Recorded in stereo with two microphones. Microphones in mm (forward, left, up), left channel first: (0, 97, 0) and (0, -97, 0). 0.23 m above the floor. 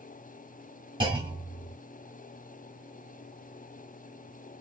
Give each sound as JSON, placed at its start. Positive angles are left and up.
{"t": 1.0, "sound": "a clunk", "side_deg": -25, "distance_m": 2.0}